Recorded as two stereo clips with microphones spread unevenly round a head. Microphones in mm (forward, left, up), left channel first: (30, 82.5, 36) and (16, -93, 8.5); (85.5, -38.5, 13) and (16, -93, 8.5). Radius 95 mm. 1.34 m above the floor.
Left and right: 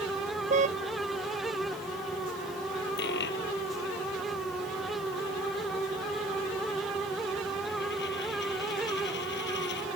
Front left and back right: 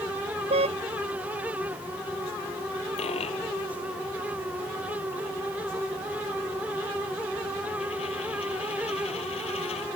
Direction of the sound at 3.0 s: 60° left.